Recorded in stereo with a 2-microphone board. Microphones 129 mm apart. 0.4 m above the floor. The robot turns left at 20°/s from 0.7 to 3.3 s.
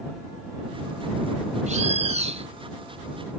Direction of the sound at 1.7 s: 65° right (ahead or behind).